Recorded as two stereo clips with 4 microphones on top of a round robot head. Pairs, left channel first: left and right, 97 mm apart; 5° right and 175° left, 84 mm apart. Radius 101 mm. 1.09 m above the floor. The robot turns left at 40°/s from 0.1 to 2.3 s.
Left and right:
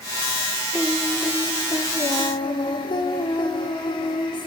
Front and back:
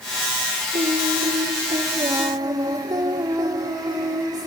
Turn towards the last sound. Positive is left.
turn(degrees=130)